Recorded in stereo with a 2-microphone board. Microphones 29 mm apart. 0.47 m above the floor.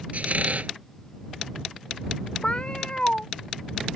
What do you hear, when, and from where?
0.1 s a squeak: 60° right (ahead or behind)
2.4 s a cat meowing: 40° left (ahead or behind)